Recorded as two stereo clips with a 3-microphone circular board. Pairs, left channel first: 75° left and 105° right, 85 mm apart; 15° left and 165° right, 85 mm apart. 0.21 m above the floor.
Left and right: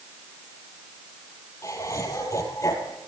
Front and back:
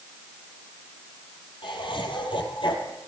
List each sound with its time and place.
1.6 s laughter: 25° left, 5 m